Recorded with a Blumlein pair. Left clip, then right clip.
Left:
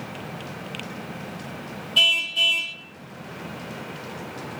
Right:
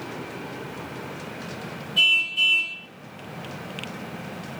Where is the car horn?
30° left, 3.5 m.